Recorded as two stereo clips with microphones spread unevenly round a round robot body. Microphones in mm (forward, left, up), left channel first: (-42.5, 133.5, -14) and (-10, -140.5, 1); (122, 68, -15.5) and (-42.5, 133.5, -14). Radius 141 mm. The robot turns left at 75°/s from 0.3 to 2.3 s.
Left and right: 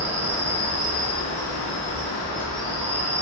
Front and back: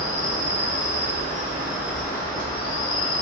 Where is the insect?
165° right, 1.1 m; by 3.2 s 45° left, 1.1 m.